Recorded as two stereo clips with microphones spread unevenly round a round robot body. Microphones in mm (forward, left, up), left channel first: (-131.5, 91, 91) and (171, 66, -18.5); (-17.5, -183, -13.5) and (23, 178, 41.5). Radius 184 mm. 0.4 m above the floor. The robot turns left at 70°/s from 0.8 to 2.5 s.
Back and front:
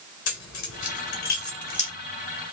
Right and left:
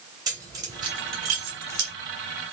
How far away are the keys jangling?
About 1.6 m.